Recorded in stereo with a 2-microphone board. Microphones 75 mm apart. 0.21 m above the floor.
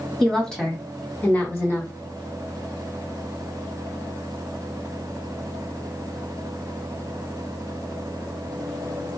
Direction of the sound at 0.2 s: 5° left (ahead or behind).